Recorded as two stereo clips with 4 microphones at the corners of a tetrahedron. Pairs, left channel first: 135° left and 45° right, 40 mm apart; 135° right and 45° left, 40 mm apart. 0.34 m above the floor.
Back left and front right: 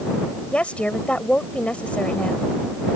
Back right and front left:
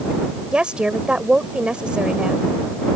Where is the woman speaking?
100° left.